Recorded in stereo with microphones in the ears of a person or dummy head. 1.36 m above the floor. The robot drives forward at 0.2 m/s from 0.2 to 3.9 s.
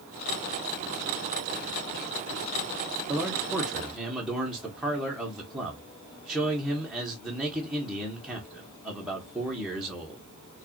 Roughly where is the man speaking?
Centre.